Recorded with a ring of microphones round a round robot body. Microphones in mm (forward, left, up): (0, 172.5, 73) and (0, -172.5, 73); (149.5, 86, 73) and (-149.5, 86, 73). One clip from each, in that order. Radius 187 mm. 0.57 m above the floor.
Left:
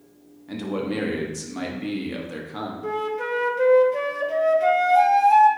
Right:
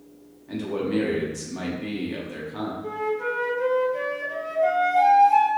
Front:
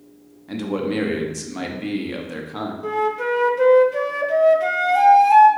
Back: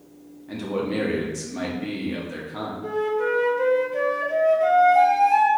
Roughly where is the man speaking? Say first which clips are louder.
Right 1 dB, front 2 dB; ahead left.